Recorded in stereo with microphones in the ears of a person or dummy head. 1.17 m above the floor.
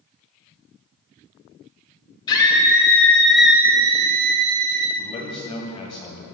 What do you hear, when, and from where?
2.3 s a scream: 30° left (ahead or behind), 3 m; by 4.9 s 80° right, 1.6 m
5.0 s a man speaking: 30° left (ahead or behind), 1.8 m